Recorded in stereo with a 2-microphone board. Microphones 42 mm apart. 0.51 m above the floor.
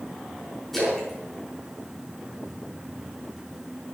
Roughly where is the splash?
Centre.